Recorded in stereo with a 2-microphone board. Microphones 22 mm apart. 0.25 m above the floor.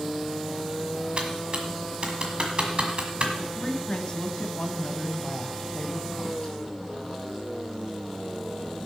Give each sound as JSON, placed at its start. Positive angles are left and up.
{"t": 1.2, "sound": "typing on a keyboard", "side_deg": -50, "distance_m": 1.6}
{"t": 3.4, "sound": "a woman speaking", "side_deg": 40, "distance_m": 1.5}